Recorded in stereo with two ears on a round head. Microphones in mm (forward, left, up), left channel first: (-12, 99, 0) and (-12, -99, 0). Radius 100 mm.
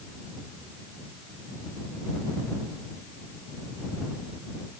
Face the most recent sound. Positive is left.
No sound to turn to.